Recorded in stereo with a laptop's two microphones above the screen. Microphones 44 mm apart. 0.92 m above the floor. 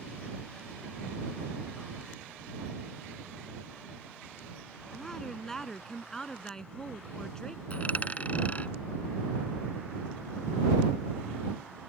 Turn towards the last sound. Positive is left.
turn(degrees=30)  # may be behind; listen again after turning